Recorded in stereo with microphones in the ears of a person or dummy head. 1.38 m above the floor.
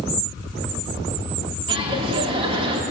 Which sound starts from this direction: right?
Laughter, at 1.7 s.